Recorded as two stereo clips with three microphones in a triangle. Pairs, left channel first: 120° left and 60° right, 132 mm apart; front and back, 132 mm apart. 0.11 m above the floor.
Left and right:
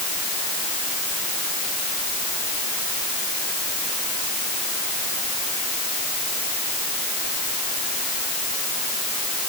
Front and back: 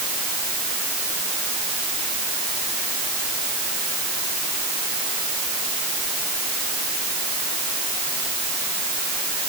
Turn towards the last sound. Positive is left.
No sound to turn to.